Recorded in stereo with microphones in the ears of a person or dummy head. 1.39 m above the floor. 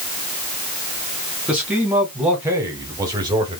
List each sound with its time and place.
1.5 s a man speaking: 5° right (ahead or behind), 2.0 m; by 3.6 s 30° right (ahead or behind), 1.0 m